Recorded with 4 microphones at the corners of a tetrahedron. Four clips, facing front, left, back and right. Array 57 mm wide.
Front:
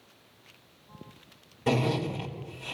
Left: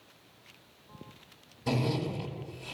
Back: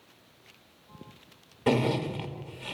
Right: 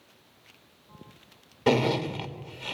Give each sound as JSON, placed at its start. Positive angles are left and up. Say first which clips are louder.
{"t": 1.7, "sound": "a zipper", "louder": "right 7 dB, back 1 dB", "azimuth_deg": -110, "distance_m": 2.5}